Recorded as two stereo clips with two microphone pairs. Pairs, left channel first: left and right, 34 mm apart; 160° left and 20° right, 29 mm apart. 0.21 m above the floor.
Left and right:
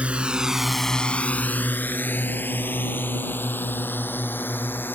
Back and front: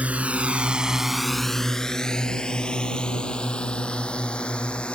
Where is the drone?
40° right; by 5.0 s 105° left.